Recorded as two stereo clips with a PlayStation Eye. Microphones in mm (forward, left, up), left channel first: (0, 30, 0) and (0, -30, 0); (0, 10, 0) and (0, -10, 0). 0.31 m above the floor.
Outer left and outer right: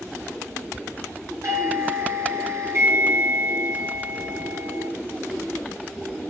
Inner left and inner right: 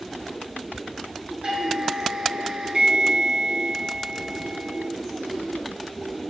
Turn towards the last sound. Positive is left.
turn(degrees=-55)  # may be behind; listen again after turning